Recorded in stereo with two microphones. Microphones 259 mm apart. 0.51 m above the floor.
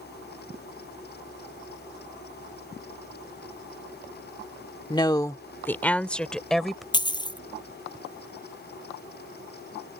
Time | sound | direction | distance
4.9 | a woman speaking | 15° left (ahead or behind) | ?
6.9 | a dropped coin | 15° left (ahead or behind) | ?